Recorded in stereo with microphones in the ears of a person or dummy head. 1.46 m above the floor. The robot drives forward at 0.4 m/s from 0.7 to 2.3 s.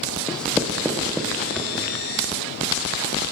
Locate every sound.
0.3 s writing: centre (ahead or behind), 0.7 m